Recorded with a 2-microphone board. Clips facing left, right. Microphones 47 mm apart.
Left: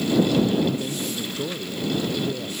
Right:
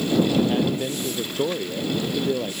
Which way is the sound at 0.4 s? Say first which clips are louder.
Even; 35° right (ahead or behind).